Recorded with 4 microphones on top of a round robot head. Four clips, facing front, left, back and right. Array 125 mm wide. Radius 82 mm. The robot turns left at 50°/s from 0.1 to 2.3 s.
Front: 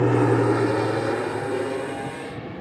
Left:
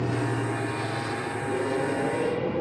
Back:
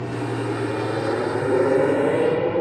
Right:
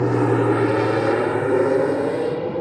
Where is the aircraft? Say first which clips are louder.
Right 10 dB, front 7 dB; 45° right; by 2.6 s 160° right.